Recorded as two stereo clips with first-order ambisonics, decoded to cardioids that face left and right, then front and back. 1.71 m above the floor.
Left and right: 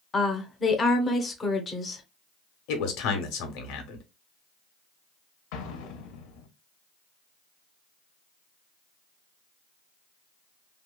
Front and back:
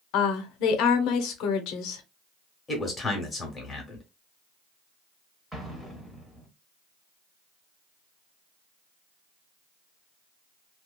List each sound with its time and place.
0.1 s a woman speaking: 20° left, 0.6 m
2.7 s a man speaking: 75° left, 1.0 m
5.5 s an explosion: 90° left, 0.7 m